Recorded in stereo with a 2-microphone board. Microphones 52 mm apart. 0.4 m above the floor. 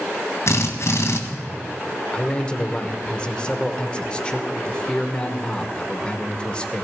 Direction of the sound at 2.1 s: 20° left (ahead or behind).